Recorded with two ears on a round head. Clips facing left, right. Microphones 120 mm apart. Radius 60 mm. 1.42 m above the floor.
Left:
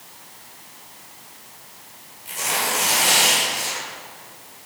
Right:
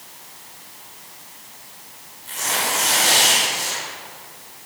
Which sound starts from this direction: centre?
Tearing paper, at 2.2 s.